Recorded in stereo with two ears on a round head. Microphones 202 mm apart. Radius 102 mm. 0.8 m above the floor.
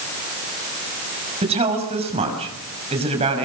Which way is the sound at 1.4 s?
25° right (ahead or behind).